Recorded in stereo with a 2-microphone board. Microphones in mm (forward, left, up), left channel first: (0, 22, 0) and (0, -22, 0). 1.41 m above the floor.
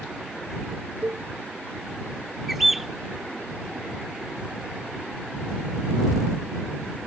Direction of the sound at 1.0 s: 35° right (ahead or behind).